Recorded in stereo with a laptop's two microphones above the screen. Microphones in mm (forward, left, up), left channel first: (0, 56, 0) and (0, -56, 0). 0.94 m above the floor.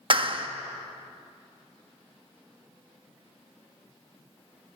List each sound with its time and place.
0.1 s a clap: 50° right (ahead or behind), 1.1 m